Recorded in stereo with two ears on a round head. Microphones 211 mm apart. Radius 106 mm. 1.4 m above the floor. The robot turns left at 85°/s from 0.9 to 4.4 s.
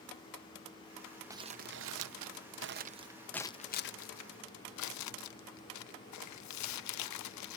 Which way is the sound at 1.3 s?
10° right (ahead or behind).